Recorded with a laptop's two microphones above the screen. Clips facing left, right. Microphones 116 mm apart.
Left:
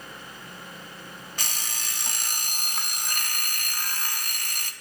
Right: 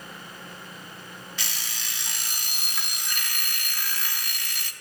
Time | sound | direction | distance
1.4 | an alarm clock | 50° left (ahead or behind) | 0.9 m